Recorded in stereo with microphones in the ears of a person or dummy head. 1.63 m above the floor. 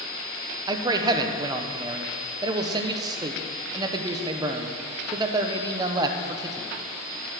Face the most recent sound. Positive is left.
turn(degrees=-20)  # may be behind; listen again after turning